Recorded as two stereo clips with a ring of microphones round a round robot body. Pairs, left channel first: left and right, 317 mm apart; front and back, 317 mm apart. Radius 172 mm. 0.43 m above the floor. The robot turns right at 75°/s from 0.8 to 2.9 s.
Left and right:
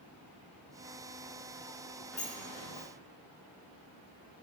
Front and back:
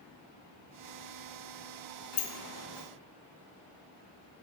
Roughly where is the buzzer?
No buzzer in this recording.